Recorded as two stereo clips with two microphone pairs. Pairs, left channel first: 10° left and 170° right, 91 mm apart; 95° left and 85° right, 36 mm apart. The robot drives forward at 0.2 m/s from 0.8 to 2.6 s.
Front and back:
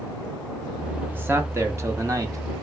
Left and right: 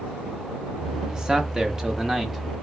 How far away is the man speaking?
About 0.7 m.